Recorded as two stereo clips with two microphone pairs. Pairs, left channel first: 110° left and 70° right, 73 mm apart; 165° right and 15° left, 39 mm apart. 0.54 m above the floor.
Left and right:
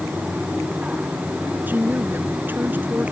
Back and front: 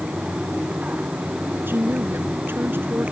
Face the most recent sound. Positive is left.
turn(degrees=-5)